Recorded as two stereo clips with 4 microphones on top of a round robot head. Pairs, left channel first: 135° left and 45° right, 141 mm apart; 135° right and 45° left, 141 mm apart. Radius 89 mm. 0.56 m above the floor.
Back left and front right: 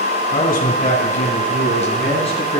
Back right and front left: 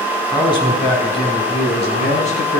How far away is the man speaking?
About 5 m.